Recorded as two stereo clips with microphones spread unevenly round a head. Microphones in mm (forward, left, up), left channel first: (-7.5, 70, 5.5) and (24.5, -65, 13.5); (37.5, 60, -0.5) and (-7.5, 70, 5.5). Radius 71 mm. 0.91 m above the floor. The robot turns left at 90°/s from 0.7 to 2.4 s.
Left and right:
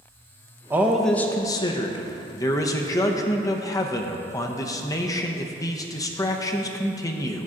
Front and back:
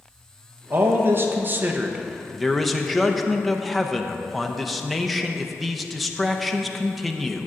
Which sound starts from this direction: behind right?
A man speaking, at 0.7 s.